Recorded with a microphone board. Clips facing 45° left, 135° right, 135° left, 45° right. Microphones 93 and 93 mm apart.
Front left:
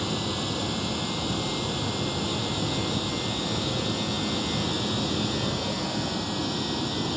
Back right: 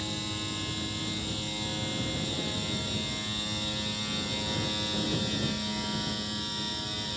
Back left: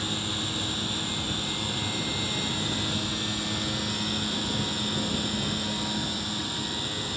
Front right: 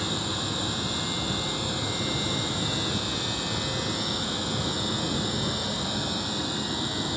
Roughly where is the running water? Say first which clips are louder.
Front left 7 dB, front right 2 dB; ahead left.